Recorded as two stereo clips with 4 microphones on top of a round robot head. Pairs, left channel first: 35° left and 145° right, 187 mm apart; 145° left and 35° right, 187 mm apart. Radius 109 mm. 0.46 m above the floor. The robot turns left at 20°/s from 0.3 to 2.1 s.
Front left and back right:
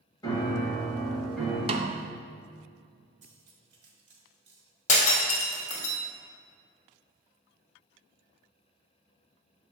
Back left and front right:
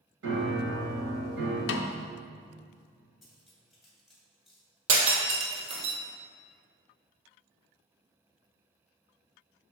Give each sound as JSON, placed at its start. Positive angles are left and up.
{"t": 0.2, "sound": "a piano", "azimuth_deg": -35, "distance_m": 1.3}
{"t": 1.7, "sound": "a snare drum", "azimuth_deg": 155, "distance_m": 0.5}
{"t": 3.2, "sound": "cutlery clinking", "azimuth_deg": -125, "distance_m": 1.6}
{"t": 4.9, "sound": "breaking glass", "azimuth_deg": -15, "distance_m": 1.5}